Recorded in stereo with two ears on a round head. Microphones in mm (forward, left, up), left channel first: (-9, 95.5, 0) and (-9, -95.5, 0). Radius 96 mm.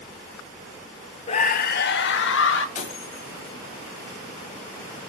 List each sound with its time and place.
1.3 s a scream: 30° left (ahead or behind), 0.8 m; by 2.6 s 70° left (ahead or behind), 1.8 m
2.8 s breaking glass: 35° left (ahead or behind), 2 m